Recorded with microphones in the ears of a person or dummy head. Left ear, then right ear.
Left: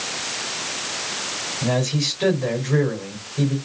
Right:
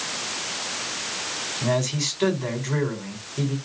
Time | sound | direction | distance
1.6 | a man speaking | 35° right (ahead or behind) | 4.5 m